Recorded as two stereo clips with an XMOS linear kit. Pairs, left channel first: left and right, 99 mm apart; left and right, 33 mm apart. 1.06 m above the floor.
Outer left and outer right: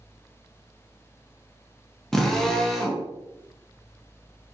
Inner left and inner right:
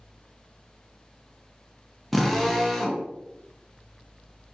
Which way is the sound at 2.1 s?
5° left (ahead or behind).